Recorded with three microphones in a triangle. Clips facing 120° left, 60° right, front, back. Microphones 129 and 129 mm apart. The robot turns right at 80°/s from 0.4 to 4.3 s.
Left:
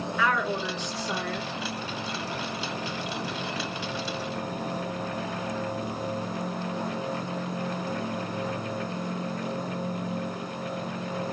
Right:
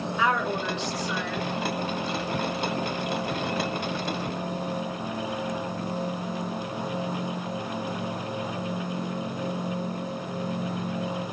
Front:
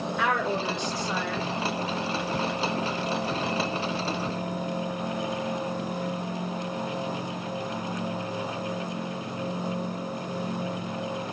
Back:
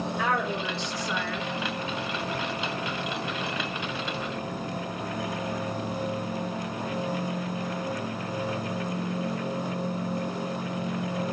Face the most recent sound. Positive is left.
turn(degrees=-35)